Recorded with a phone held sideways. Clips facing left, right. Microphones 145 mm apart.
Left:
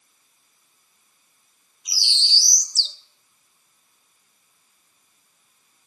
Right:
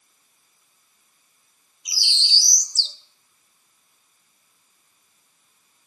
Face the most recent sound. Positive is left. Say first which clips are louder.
# even
turn(degrees=-15)  # may be behind; listen again after turning